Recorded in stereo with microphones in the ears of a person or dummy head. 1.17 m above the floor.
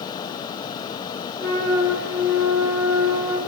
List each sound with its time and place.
1.4 s a flute: 20° right (ahead or behind), 9 m